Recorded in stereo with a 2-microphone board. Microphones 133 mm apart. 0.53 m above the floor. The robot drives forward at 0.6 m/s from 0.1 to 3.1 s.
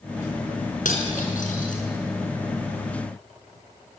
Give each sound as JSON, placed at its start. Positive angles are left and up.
{"t": 0.8, "sound": "cutlery clinking", "side_deg": 85, "distance_m": 4.5}